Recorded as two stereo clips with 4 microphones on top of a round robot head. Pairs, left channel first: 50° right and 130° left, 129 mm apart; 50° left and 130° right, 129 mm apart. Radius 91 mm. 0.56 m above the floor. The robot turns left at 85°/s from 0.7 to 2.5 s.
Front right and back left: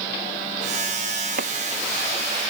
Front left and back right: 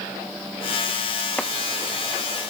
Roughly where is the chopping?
Behind left.